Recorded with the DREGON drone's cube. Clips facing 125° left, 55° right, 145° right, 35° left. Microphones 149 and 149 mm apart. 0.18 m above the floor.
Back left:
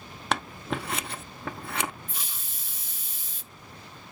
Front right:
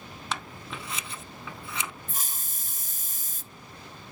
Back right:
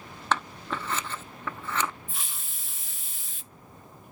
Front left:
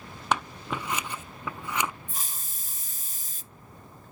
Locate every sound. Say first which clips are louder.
0.3 s scissors: back left 7 dB, front left 1 dB; 110° left, 0.7 m
2.1 s a hiss: front right 2 dB, front left 1 dB; 15° right, 0.5 m